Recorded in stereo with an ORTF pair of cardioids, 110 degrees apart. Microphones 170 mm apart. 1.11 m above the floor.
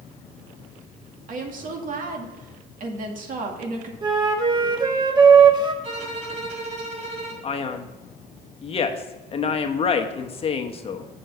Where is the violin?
45° right, 2.5 m.